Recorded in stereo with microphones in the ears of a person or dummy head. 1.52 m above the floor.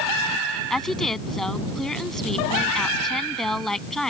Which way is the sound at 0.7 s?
5° left (ahead or behind).